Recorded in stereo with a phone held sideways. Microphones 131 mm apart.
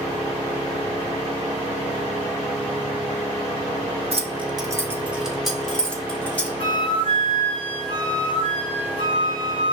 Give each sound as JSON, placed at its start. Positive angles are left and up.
{"t": 4.1, "sound": "keys jangling", "side_deg": -50, "distance_m": 0.6}
{"t": 6.6, "sound": "a flute", "side_deg": 40, "distance_m": 0.6}